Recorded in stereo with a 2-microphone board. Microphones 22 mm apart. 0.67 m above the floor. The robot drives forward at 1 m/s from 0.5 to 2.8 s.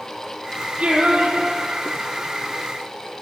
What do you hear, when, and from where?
0.8 s singing: 75° right (ahead or behind), 3.5 m; by 2.4 s 55° right (ahead or behind), 4 m